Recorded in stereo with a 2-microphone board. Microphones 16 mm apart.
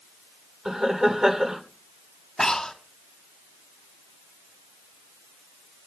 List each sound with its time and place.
0.7 s laughter: 40° right (ahead or behind), 2.0 m
2.4 s breathing: 35° left (ahead or behind), 2.5 m